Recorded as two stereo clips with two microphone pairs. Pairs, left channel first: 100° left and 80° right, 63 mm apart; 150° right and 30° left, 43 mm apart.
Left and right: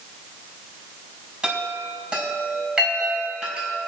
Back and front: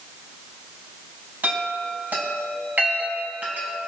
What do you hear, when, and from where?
1.4 s a chime: 10° right, 4.5 m